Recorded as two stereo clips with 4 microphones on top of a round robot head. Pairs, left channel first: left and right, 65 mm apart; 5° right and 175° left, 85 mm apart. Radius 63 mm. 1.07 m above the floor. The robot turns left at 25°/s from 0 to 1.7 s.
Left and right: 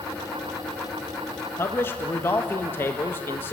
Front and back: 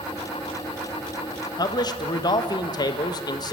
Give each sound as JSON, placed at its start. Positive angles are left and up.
{"t": 1.6, "sound": "a man speaking", "azimuth_deg": 35, "distance_m": 1.3}